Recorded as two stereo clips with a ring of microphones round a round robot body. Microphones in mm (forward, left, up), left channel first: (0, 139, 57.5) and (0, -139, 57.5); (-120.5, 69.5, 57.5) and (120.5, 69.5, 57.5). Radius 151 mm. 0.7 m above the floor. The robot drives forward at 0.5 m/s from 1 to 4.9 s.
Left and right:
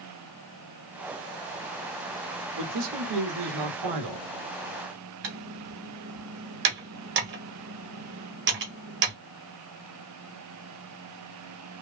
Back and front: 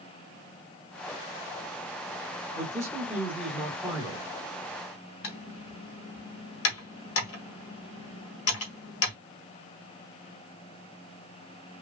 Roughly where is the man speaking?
Right.